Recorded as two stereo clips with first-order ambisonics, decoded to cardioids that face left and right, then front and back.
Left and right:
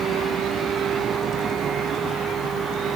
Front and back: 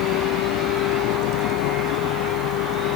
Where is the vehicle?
30° right; by 3.0 s 25° right.